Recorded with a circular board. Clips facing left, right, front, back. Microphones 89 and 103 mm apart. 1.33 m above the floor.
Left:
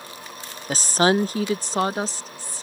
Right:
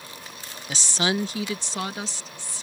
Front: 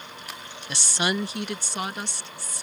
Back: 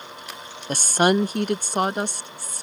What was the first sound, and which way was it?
A woman speaking, 135° left.